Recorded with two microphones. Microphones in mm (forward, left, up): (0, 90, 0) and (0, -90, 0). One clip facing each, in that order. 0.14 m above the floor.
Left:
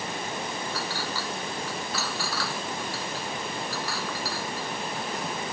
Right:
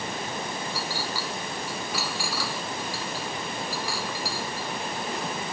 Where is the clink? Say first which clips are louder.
Even; 10° right (ahead or behind).